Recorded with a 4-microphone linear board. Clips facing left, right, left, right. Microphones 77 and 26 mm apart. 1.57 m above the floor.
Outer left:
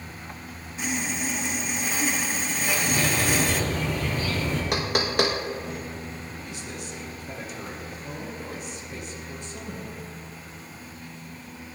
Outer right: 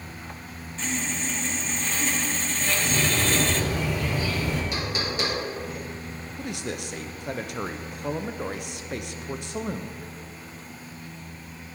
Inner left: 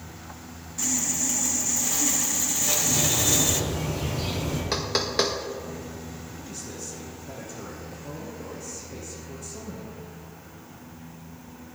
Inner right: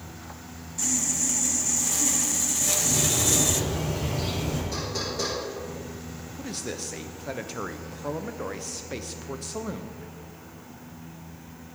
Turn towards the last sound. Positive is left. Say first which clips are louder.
# outer right 5 dB, inner right 8 dB
turn(degrees=-70)  # may be behind; listen again after turning